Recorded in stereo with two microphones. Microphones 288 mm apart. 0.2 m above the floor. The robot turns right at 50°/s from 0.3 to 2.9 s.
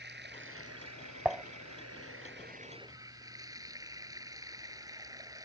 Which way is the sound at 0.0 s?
140° right.